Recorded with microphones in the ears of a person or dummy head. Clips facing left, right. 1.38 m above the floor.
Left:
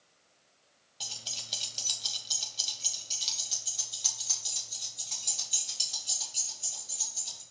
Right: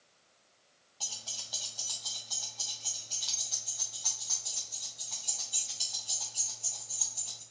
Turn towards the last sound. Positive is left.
turn(degrees=35)  # may be behind; listen again after turning